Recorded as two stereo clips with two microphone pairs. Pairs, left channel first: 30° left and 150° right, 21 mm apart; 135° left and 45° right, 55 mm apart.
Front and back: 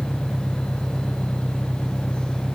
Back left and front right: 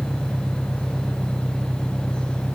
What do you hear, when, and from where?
0.0 s an engine running: 115° right